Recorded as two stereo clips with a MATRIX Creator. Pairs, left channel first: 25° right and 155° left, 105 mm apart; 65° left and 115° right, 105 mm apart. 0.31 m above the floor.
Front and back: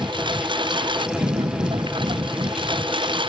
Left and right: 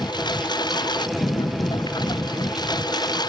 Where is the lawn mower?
115° left.